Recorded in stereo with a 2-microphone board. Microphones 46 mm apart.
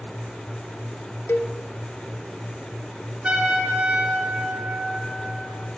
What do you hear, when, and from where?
1.3 s a cowbell: 75° left (ahead or behind), 0.5 m
3.2 s a trumpet: 25° right (ahead or behind), 3 m